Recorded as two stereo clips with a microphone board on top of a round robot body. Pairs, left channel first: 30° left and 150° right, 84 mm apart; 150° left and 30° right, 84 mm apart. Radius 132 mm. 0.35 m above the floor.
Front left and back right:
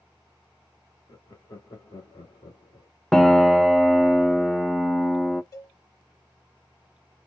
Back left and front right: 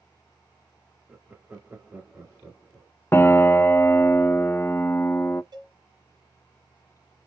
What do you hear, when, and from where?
1.1 s laughter: 30° left, 1.4 m
3.1 s a piano: 115° left, 0.6 m
5.5 s a cowbell: 15° right, 1.7 m